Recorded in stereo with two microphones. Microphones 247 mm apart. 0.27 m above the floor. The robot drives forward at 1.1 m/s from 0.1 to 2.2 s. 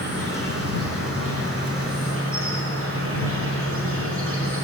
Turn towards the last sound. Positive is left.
turn(degrees=-60)  # may be behind; listen again after turning